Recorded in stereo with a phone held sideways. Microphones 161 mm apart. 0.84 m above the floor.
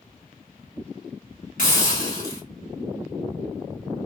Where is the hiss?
70° left (ahead or behind), 1.9 m.